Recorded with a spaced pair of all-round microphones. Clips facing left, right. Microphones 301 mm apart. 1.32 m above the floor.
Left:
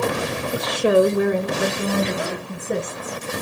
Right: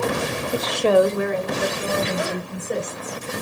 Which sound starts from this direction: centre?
A woman speaking, at 0.5 s.